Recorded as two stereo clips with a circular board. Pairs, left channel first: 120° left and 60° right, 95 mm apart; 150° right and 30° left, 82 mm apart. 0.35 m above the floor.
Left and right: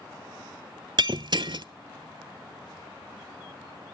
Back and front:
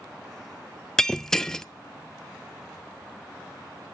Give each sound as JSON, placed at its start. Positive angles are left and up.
{"t": 1.0, "sound": "breaking glass", "azimuth_deg": -65, "distance_m": 0.5}